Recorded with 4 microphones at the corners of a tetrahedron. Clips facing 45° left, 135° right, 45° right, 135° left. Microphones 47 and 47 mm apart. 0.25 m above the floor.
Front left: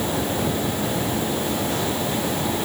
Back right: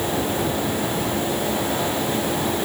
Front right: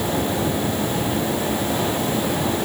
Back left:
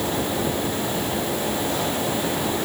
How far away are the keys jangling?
No keys jangling in this recording.